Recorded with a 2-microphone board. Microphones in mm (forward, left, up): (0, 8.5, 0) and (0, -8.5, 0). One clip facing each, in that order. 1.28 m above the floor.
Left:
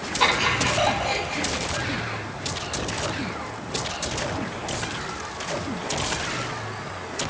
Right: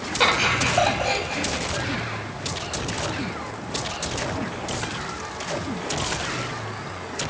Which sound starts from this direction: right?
Laughter, at 0.2 s.